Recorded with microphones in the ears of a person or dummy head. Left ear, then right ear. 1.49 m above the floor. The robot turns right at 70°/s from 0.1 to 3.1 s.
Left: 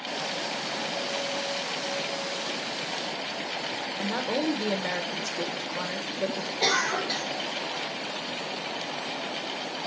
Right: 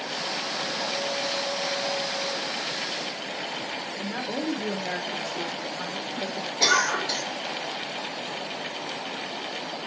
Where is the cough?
70° right (ahead or behind), 4 m.